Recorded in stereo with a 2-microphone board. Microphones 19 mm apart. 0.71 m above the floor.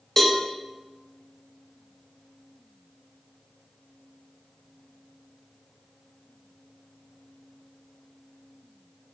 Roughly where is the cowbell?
Centre.